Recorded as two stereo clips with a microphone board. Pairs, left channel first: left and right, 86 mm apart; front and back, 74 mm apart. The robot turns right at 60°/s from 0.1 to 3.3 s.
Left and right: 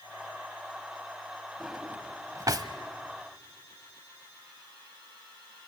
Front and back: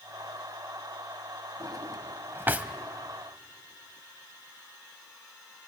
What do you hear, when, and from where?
1.6 s a drawer: 175° right, 1.0 m; by 2.7 s 110° right, 1.0 m